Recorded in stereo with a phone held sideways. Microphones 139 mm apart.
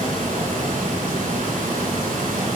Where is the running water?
90° right, 5.5 m.